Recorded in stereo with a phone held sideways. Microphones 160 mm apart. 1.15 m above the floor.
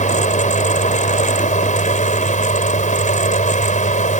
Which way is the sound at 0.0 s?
50° left (ahead or behind).